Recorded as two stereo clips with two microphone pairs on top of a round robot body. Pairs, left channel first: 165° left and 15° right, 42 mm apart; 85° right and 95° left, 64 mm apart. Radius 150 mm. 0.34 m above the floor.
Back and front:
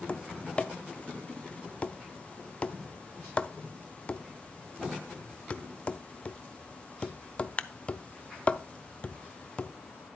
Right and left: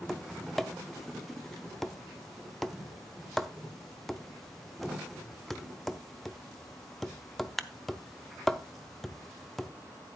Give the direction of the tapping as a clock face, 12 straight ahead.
5 o'clock.